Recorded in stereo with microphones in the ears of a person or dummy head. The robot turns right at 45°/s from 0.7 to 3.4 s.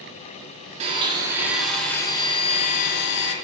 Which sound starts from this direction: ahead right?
A blender, at 0.8 s.